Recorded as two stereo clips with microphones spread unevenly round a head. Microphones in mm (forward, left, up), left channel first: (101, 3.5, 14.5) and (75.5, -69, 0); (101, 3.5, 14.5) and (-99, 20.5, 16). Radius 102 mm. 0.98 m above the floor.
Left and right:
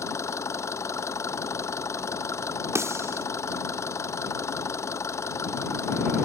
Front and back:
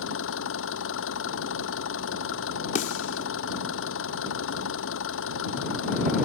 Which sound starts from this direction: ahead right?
A snare drum, at 2.8 s.